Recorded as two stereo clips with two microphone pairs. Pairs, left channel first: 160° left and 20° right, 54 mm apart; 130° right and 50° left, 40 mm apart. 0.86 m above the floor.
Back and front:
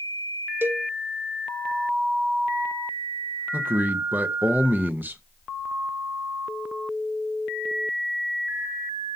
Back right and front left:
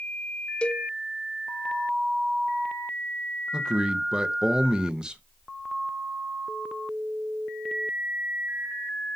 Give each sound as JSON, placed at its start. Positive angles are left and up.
{"t": 0.6, "sound": "a cowbell", "azimuth_deg": -70, "distance_m": 0.5}
{"t": 3.5, "sound": "a man speaking", "azimuth_deg": -10, "distance_m": 0.8}